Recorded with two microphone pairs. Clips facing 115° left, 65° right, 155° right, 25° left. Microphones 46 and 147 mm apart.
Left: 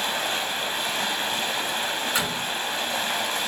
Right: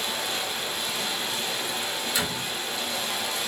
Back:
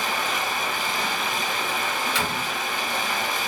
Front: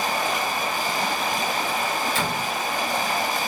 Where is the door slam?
65° left, 4.5 m.